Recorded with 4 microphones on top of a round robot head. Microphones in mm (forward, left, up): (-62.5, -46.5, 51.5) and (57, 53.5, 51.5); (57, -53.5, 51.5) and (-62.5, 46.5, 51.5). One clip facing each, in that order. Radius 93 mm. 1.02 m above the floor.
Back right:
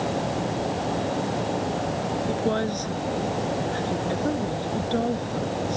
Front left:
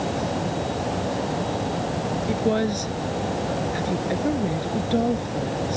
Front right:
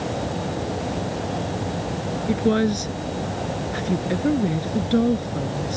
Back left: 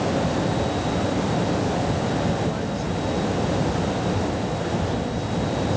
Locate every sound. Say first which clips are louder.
2.3 s a woman speaking: front left 4 dB, front right 5 dB; 40° right